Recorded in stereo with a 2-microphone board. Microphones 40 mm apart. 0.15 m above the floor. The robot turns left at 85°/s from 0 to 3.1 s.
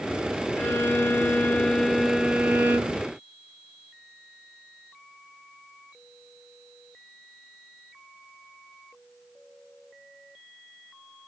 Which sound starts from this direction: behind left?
A violin, at 0.6 s.